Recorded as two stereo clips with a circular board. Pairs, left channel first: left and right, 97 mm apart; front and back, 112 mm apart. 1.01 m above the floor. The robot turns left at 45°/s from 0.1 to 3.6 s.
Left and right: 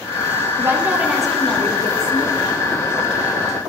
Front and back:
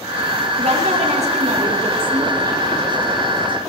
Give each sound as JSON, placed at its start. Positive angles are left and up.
{"t": 0.6, "sound": "a woman speaking", "azimuth_deg": -150, "distance_m": 1.3}